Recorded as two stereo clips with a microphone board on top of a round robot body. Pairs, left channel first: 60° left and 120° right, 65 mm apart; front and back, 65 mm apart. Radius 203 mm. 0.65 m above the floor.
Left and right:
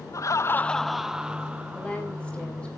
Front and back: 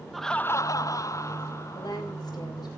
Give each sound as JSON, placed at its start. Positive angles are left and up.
{"t": 0.1, "sound": "laughter", "azimuth_deg": 95, "distance_m": 0.8}
{"t": 1.7, "sound": "a woman speaking", "azimuth_deg": -15, "distance_m": 5.5}